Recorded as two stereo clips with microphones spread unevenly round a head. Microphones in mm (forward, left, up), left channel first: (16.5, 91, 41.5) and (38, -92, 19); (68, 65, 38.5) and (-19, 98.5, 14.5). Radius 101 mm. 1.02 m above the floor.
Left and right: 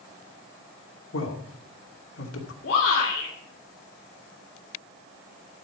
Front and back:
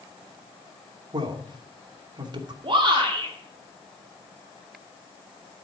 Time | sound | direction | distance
1.1 | a man speaking | 120° left | 2.5 m
2.6 | a shout | 140° left | 2.5 m